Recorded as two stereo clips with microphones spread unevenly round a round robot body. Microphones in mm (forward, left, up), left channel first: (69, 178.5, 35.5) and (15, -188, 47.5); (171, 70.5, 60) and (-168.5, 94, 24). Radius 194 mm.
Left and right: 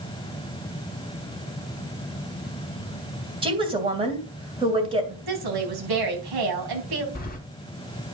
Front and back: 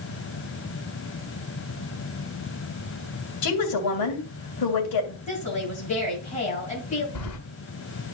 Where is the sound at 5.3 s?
75° right, 3.5 m.